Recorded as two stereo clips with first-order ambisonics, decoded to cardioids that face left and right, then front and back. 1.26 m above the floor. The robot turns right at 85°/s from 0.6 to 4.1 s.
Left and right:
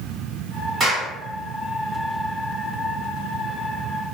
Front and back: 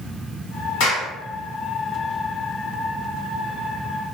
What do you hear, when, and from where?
0.8 s a clap: 15° right, 1.5 m; by 1.1 s 15° left, 1.5 m